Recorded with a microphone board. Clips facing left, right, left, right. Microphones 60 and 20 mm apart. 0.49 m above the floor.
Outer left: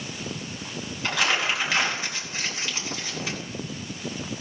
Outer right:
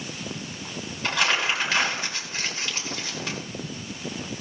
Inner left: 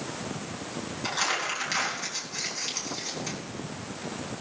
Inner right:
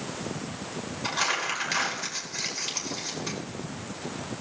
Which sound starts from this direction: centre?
Crumpling, at 1.0 s.